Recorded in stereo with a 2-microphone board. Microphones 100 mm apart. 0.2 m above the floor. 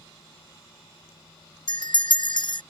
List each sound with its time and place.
1.7 s a bell: 55° left (ahead or behind)